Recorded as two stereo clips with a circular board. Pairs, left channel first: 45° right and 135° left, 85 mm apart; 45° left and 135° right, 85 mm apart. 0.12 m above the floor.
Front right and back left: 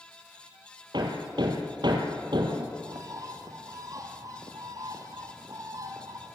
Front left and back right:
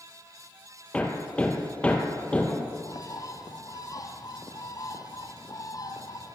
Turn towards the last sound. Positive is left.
turn(degrees=90)